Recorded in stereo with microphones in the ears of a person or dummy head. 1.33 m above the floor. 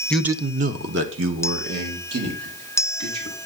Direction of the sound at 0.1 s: 5° left (ahead or behind).